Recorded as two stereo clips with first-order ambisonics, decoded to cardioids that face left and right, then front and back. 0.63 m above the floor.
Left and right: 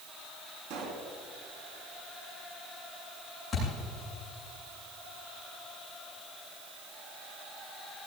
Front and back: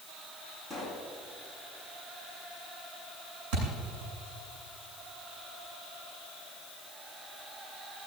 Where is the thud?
170° left, 7.5 m.